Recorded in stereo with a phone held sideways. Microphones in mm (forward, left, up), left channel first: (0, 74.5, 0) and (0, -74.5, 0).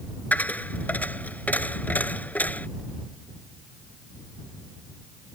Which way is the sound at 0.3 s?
10° left (ahead or behind).